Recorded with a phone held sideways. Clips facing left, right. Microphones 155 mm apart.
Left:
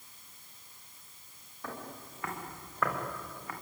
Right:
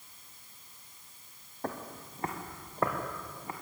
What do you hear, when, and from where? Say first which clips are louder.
1.6 s footsteps: right 4 dB; 45° right (ahead or behind), 4 m; by 3.5 s 25° right (ahead or behind), 5 m